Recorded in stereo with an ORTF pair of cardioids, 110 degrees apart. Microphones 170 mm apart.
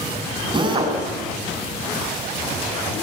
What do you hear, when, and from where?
0.5 s a drill: 30° right, 9 m